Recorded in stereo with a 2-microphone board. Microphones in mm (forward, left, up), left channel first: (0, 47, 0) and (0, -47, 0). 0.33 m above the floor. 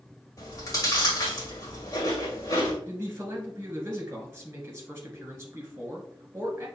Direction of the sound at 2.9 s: 25° right (ahead or behind).